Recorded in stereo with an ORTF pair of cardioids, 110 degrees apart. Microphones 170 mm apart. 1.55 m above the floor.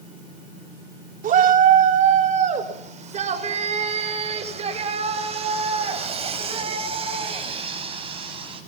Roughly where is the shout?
Ahead right.